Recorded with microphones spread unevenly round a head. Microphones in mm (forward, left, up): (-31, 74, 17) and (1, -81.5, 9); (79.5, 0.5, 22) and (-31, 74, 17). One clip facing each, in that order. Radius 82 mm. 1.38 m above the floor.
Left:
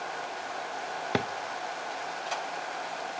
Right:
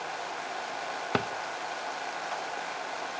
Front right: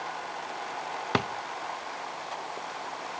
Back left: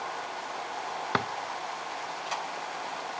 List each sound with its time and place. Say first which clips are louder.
1.1 s a drawer: left 1 dB, front right 2 dB; 25° left, 0.7 m